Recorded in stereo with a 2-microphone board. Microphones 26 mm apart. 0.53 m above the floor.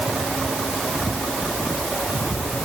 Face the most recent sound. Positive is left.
No sound to turn to.